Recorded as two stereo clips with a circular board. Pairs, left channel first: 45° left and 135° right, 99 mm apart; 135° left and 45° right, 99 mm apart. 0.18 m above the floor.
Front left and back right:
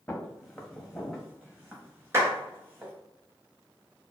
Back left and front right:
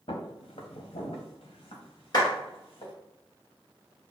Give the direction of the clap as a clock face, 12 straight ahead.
6 o'clock.